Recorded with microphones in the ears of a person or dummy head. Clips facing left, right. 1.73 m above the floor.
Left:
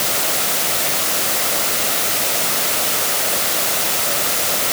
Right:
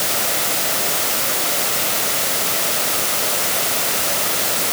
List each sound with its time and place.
Only background noise.